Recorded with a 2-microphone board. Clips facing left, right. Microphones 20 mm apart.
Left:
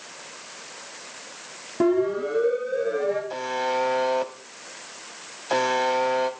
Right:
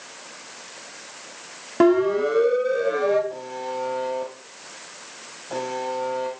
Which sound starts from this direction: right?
A siren, at 1.8 s.